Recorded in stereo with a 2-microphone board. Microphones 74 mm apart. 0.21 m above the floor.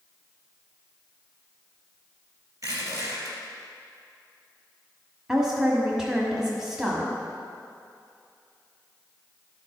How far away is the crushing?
About 3 m.